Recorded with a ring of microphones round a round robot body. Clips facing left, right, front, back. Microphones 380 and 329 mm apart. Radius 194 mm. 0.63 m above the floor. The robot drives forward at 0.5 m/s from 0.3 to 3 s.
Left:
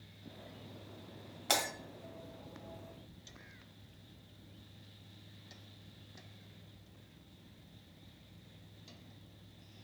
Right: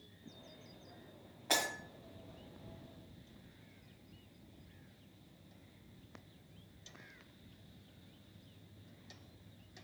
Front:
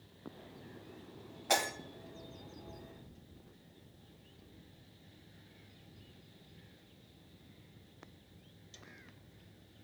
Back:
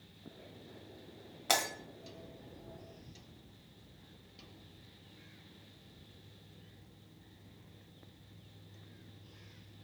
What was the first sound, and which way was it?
Breaking glass, 145° left.